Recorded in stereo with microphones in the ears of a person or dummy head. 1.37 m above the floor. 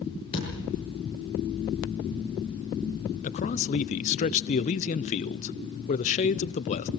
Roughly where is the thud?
Left.